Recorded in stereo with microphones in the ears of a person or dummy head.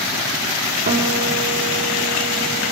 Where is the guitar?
45° right (ahead or behind), 4 m.